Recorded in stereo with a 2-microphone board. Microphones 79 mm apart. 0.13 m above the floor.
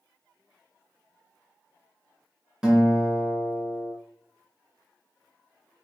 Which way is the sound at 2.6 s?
10° right (ahead or behind).